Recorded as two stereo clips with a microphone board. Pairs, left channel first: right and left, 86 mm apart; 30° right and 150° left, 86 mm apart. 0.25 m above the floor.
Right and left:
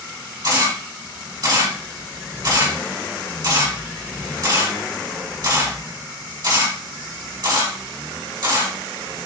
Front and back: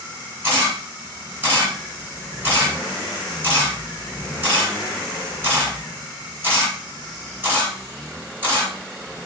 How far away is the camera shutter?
About 2.0 m.